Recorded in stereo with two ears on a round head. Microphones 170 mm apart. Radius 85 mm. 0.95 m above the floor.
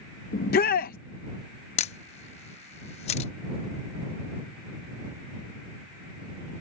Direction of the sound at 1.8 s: 35° left (ahead or behind).